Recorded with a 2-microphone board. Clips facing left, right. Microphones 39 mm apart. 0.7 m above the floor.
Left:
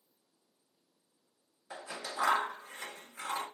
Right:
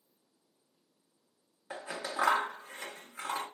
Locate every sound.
1.7 s scissors: 30° right (ahead or behind), 1.1 m